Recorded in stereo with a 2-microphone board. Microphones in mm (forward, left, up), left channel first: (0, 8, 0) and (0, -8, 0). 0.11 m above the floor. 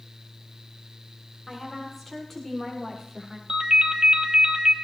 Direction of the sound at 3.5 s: 60° right (ahead or behind).